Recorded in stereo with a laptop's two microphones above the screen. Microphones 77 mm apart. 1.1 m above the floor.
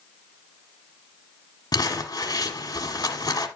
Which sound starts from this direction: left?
Crumpling, at 1.7 s.